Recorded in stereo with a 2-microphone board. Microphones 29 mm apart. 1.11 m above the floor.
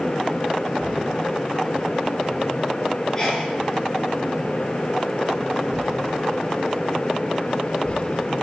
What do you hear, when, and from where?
3.1 s a sneeze: 25° left (ahead or behind), 9 m